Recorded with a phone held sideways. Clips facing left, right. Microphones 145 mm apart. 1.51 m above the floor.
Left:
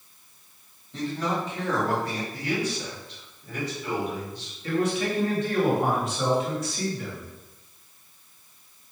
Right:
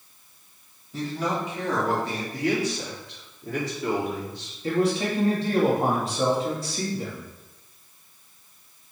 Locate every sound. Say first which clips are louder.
0.9 s a man speaking: even; 5° right (ahead or behind), 3 m; by 2.2 s 25° right (ahead or behind), 2.5 m
2.3 s a man speaking: right 5 dB; 75° right (ahead or behind), 3.5 m
4.6 s a man speaking: right 2 dB; 30° right (ahead or behind), 2 m